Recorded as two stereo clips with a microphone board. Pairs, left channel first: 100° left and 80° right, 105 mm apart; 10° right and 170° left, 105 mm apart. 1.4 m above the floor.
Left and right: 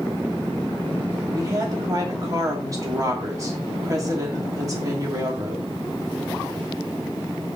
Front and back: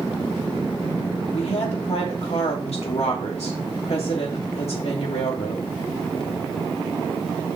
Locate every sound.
1.3 s a woman speaking: 20° right, 2.5 m